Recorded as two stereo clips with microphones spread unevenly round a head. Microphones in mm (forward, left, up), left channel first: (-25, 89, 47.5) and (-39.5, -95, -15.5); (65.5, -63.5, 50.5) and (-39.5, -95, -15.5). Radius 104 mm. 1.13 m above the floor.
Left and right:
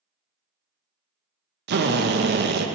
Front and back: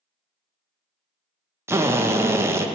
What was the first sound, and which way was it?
A drill, 105° right.